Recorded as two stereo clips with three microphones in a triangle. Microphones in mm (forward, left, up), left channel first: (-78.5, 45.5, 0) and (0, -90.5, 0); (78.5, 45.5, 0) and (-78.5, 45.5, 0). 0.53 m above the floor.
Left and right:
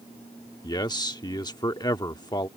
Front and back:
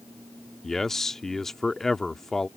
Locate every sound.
0.6 s a man speaking: 85° left